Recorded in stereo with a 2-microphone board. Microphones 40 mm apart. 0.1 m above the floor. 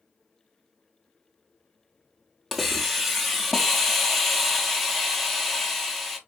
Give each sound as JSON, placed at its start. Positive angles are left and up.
{"t": 2.5, "sound": "a hiss", "side_deg": 0, "distance_m": 0.7}